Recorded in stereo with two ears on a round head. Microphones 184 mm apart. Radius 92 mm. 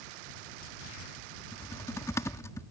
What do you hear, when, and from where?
1.5 s typing on a keyboard: 15° left (ahead or behind)